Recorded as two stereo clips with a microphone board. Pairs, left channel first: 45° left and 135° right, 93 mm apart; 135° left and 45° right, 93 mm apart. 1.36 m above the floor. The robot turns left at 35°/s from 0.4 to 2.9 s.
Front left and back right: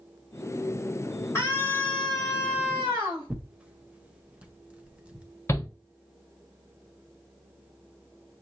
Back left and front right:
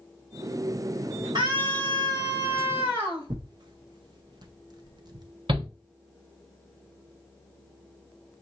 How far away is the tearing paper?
About 0.7 m.